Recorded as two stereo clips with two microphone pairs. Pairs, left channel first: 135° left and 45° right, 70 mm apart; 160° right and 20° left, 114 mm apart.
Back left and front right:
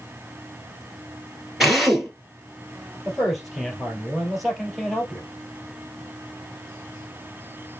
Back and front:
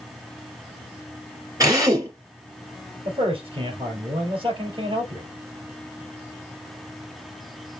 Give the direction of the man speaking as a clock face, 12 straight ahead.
11 o'clock.